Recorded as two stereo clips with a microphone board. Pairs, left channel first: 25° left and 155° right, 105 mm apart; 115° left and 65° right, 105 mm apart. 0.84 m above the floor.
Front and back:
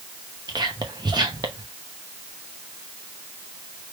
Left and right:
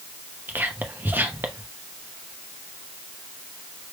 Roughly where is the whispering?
Behind right.